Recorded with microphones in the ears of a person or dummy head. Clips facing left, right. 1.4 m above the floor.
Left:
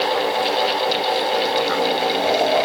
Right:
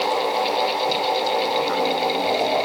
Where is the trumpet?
I don't hear a trumpet.